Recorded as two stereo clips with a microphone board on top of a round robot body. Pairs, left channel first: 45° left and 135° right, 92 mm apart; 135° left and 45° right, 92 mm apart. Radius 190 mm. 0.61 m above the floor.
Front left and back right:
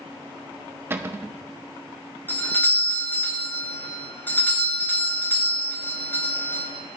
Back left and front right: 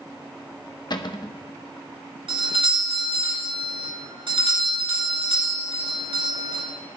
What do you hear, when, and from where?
0.9 s a cupboard door: 165° left, 1.1 m
2.3 s a doorbell: 25° right, 4.5 m